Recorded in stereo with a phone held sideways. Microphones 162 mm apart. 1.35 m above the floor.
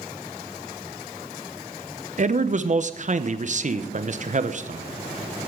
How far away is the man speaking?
About 0.8 m.